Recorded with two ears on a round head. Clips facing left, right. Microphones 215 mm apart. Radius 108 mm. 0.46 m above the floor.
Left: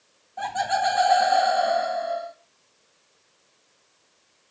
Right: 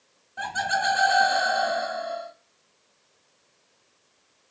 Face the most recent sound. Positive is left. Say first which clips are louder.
# left 4 dB
turn(degrees=-20)  # may be behind; listen again after turning